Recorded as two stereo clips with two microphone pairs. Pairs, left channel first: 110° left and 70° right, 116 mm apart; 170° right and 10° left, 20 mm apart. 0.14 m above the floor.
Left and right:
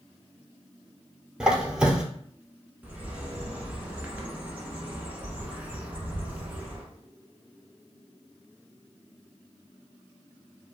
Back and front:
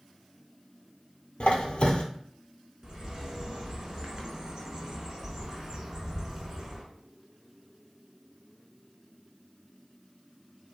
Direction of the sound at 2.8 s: 10° right.